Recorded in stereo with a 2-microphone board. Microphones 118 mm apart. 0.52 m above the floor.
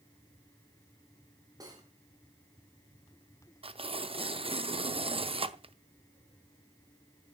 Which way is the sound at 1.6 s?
30° right (ahead or behind).